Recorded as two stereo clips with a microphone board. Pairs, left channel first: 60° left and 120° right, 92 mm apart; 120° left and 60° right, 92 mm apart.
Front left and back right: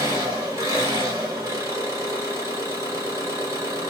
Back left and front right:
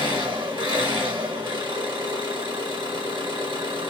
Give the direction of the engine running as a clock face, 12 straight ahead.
2 o'clock.